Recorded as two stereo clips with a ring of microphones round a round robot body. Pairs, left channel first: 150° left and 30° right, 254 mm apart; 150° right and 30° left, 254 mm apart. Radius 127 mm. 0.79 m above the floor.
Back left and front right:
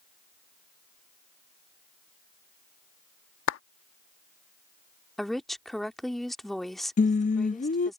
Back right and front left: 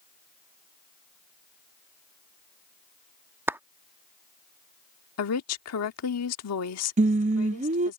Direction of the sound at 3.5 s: 110° left.